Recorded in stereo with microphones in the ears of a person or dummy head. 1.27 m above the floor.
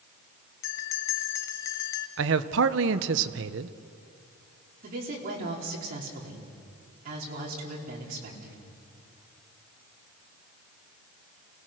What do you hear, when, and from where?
0.6 s a bell: 15° left (ahead or behind), 0.5 m
2.2 s a man speaking: 65° right (ahead or behind), 0.8 m
4.8 s a woman speaking: 50° right (ahead or behind), 3.5 m